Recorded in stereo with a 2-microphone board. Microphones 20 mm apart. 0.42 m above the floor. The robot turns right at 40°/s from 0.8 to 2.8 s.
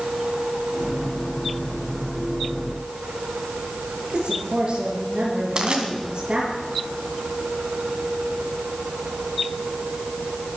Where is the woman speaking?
55° right (ahead or behind), 7 m.